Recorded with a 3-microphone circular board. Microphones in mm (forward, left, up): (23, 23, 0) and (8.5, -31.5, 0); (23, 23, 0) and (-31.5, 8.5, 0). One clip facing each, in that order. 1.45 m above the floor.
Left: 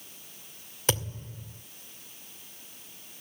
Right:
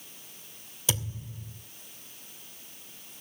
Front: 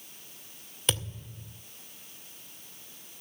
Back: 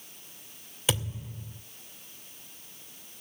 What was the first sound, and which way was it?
A thud, 115° left.